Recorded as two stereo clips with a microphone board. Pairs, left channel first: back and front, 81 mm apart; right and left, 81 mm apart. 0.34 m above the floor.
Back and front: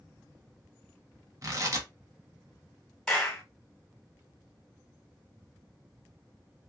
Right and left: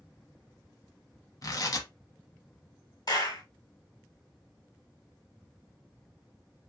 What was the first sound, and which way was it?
Tearing paper, 45° right.